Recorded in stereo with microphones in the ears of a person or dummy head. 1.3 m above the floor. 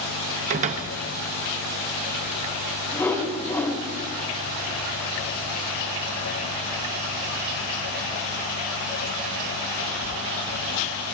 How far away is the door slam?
About 0.6 m.